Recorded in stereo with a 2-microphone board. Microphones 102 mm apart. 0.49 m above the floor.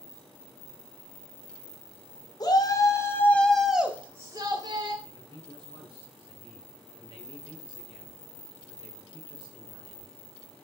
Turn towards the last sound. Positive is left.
turn(degrees=-45)  # may be behind; listen again after turning